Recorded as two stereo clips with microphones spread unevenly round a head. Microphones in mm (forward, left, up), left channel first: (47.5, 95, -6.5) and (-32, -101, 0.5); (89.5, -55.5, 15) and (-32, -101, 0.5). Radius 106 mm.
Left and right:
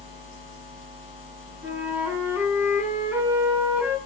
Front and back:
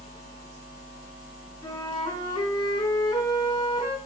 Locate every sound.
1.6 s a flute: 30° right, 8 m